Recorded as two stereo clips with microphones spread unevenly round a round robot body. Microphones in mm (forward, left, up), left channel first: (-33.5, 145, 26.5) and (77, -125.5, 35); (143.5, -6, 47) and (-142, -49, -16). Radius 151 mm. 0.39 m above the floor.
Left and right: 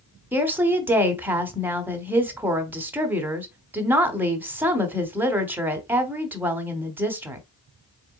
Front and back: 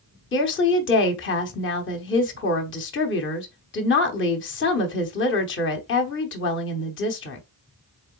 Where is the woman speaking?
10° left, 1.0 m.